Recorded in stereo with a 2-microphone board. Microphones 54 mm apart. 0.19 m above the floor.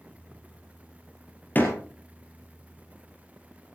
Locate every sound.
1.6 s a door slam: 35° left (ahead or behind), 3 m